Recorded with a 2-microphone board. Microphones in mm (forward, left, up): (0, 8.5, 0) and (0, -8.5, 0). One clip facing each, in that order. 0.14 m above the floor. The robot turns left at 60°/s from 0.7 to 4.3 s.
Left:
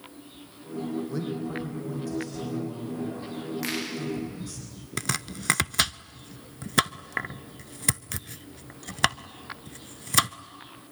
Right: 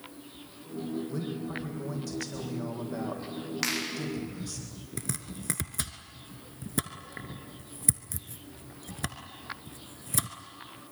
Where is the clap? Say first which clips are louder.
Right 1 dB; 40° right (ahead or behind), 7.5 m; by 3.8 s 55° right (ahead or behind), 7.5 m.